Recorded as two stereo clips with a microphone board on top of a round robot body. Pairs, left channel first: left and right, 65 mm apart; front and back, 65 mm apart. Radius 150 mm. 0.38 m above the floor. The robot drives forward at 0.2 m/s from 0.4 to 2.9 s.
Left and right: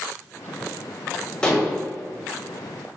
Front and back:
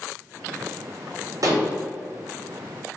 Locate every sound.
1.4 s dishes clattering: 165° left, 0.9 m